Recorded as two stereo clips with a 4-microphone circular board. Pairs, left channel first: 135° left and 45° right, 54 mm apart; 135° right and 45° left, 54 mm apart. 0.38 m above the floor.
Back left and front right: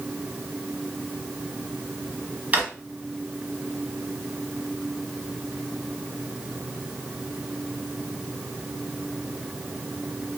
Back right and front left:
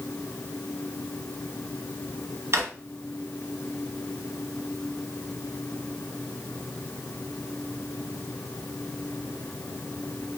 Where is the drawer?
15° left, 1.4 m.